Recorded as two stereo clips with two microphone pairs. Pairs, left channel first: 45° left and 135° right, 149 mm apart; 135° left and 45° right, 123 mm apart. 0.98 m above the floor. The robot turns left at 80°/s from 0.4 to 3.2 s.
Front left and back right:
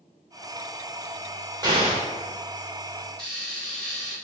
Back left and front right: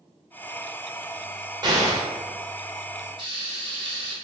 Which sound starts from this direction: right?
An explosion, at 1.6 s.